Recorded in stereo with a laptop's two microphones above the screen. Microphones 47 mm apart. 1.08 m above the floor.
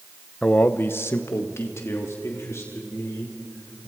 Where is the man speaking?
20° left (ahead or behind), 0.7 m; by 3.9 s 75° left (ahead or behind), 5 m.